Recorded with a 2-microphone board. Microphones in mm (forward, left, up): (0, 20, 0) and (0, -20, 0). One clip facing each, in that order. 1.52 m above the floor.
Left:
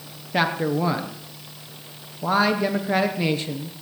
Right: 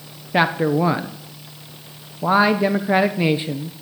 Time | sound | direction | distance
0.3 | a man speaking | 15° right (ahead or behind) | 1.0 m